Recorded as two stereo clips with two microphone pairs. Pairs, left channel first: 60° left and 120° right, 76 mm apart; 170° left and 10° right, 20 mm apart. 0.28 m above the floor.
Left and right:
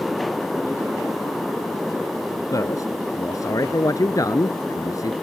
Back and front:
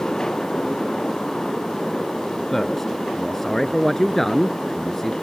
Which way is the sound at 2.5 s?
100° left.